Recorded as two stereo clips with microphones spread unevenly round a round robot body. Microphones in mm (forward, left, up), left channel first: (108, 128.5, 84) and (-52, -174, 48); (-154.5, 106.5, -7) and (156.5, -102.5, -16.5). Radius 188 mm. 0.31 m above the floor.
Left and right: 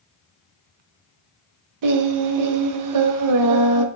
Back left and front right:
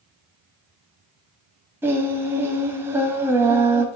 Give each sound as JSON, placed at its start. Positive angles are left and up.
{"t": 1.8, "sound": "singing", "azimuth_deg": -115, "distance_m": 0.9}